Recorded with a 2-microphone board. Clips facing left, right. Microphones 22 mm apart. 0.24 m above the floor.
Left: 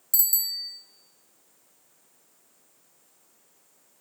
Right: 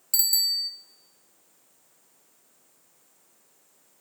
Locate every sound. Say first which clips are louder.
0.1 s a bicycle bell: right 5 dB; 40° right (ahead or behind), 3 m